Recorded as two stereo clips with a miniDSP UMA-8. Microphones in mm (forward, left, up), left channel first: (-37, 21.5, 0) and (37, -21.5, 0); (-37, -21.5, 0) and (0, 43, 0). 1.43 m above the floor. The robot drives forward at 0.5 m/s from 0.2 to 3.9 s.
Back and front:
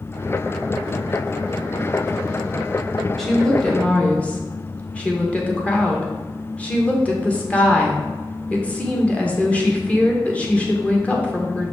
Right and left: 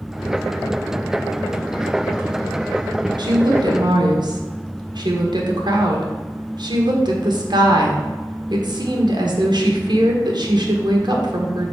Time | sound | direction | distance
3.2 | a woman speaking | 60° left | 1.7 m